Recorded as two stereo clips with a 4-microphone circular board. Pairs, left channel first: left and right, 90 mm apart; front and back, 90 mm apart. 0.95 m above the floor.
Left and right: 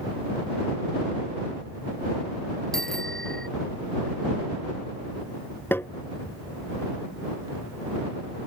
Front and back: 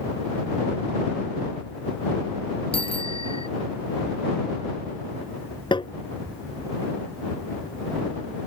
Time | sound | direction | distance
2.7 | a bicycle bell | 5° left | ?
5.7 | tapping | 25° left | ?